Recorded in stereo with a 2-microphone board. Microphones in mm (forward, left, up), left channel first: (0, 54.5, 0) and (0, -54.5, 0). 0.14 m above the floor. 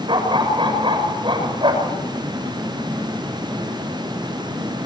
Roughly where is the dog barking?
Right.